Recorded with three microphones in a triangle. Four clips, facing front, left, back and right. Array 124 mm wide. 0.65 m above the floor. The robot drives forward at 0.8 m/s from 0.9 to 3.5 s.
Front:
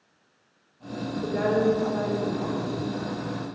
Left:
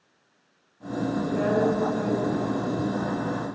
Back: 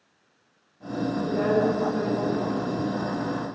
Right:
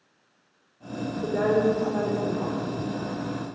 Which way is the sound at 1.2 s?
65° right.